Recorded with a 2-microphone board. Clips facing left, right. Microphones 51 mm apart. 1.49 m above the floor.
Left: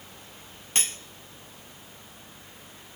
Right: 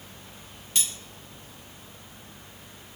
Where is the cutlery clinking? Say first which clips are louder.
Left 2 dB; 40° left (ahead or behind), 1.4 m.